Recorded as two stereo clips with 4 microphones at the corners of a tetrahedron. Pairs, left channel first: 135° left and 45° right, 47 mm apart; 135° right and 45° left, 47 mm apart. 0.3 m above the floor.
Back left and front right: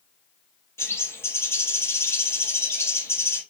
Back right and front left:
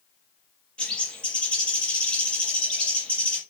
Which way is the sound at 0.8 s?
160° left.